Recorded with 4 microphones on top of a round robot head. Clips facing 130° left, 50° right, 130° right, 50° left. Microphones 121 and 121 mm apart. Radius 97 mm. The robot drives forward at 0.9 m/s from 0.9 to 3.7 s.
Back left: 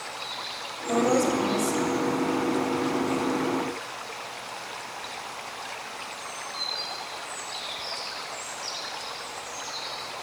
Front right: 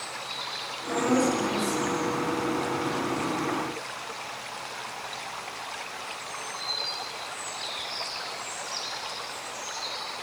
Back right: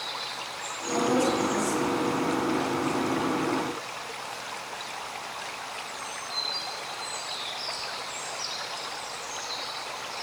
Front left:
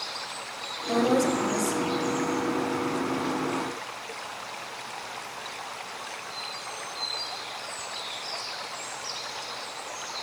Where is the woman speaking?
75° left, 6 m; by 2.2 s 85° left, 6 m.